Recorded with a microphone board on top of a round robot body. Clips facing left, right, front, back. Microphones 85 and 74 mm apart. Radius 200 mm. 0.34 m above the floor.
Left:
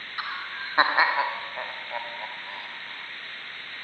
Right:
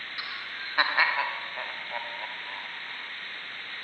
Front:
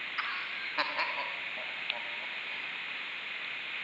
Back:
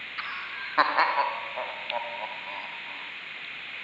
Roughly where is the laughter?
Left.